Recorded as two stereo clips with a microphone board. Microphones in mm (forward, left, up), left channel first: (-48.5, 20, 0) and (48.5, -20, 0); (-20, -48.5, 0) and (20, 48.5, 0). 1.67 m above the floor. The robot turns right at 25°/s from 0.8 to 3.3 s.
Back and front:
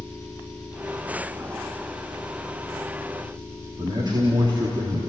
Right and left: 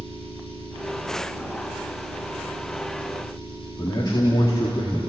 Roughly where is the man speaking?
Ahead right.